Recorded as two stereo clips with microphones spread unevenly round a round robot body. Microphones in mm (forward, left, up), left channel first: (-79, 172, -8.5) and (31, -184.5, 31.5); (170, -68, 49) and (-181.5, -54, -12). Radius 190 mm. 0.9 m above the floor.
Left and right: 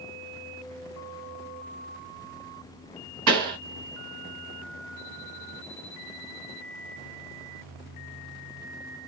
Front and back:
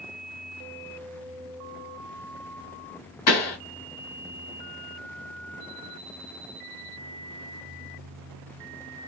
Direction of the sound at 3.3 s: 15° right.